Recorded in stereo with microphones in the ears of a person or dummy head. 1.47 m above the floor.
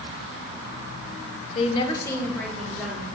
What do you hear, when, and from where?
1.6 s a woman speaking: 45° left (ahead or behind), 1.0 m; by 3.0 s centre (ahead or behind), 2.5 m